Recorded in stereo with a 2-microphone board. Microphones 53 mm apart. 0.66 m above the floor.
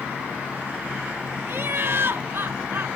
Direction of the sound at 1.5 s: 50° right (ahead or behind).